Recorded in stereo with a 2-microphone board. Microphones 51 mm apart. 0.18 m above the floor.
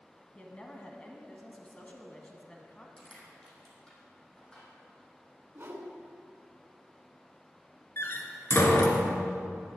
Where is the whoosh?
45° right (ahead or behind), 1.5 m.